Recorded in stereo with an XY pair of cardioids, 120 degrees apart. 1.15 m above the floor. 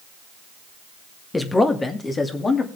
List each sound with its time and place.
1.3 s a man speaking: 20° left, 1.7 m; by 2.7 s 30° left, 2.5 m